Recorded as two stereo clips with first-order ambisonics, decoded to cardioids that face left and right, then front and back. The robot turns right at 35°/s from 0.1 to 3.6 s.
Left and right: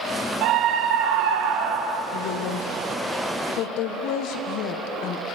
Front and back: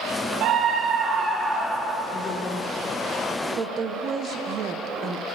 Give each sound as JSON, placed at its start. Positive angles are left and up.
{"t": 0.4, "sound": "a scream", "azimuth_deg": -135, "distance_m": 1.1}
{"t": 2.1, "sound": "a woman speaking", "azimuth_deg": 70, "distance_m": 0.7}